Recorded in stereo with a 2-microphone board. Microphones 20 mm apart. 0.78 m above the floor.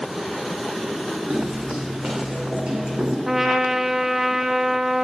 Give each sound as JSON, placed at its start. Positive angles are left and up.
{"t": 1.3, "sound": "footsteps", "side_deg": -60, "distance_m": 3.0}
{"t": 3.3, "sound": "a trumpet", "side_deg": -10, "distance_m": 0.5}